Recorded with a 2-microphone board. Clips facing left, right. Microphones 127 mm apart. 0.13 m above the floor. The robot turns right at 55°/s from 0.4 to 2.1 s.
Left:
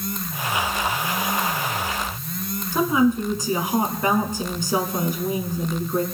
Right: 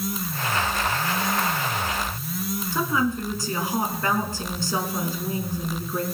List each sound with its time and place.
2.7 s a woman speaking: 20° left (ahead or behind), 1.6 m